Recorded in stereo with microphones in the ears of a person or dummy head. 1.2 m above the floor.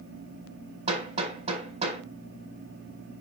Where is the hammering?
40° right (ahead or behind), 4.5 m.